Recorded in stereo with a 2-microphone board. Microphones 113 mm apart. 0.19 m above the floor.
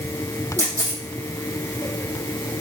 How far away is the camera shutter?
About 4 m.